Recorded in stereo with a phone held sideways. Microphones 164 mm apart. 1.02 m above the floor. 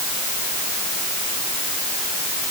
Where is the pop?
I don't hear a pop.